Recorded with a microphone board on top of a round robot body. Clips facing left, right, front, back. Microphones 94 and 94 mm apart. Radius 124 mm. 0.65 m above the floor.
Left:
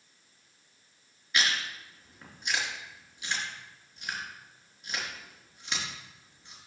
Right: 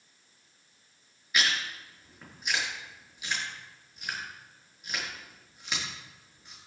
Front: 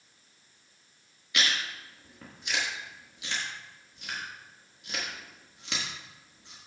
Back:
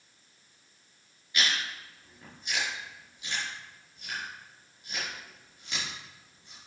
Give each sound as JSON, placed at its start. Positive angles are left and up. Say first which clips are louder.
{"t": 1.3, "sound": "chewing", "louder": "even, even", "azimuth_deg": -5, "distance_m": 4.5}